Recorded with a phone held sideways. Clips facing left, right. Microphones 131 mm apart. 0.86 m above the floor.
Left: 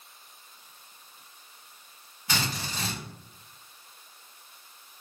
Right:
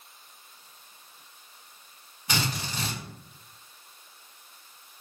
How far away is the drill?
About 1.5 m.